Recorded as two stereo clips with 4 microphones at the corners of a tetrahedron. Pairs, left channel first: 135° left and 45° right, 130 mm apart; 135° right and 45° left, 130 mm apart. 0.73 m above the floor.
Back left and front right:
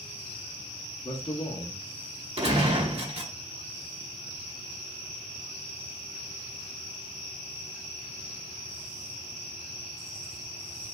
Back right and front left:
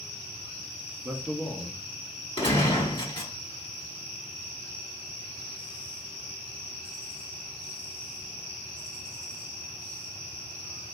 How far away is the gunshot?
About 1.7 m.